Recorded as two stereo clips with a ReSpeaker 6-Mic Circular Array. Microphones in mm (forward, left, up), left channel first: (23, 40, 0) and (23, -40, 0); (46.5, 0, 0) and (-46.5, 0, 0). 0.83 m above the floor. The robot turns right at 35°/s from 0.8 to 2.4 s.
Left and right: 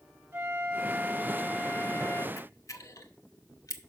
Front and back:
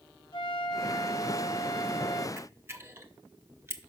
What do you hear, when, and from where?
0.3 s a flute: 20° right, 3 m; by 2.3 s 30° left, 3 m
2.4 s a camera shutter: 120° left, 0.7 m; by 3.8 s 125° left, 0.7 m